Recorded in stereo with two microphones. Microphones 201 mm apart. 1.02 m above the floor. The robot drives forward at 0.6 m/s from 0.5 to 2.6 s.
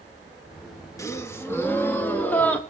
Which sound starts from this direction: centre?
A gasp, at 1.0 s.